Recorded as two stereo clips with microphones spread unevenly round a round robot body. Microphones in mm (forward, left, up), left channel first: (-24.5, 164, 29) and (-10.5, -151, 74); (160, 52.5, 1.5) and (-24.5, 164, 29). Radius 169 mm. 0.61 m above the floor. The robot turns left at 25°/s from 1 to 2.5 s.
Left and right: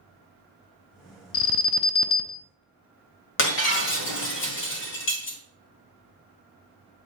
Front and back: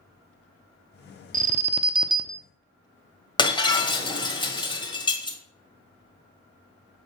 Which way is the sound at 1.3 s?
95° left.